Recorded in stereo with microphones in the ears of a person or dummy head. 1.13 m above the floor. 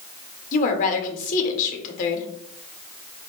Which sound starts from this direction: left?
A woman speaking, at 0.5 s.